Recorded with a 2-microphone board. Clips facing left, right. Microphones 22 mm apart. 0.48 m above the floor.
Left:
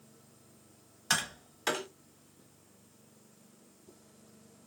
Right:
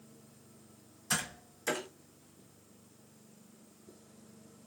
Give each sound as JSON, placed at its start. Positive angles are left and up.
{"t": 1.1, "sound": "tapping", "side_deg": 80, "distance_m": 1.4}